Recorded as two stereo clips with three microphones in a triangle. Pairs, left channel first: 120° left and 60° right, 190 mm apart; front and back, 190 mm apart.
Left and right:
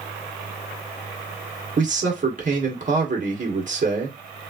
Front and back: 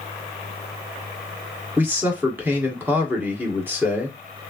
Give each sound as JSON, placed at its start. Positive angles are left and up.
{"t": 1.8, "sound": "a man speaking", "azimuth_deg": -100, "distance_m": 1.5}